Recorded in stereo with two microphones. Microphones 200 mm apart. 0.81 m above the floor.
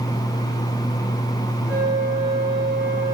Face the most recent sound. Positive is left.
turn(degrees=70)  # may be behind; listen again after turning